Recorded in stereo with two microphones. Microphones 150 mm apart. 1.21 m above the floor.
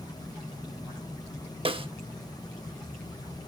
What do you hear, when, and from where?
1.6 s a snare drum: 35° right (ahead or behind), 0.9 m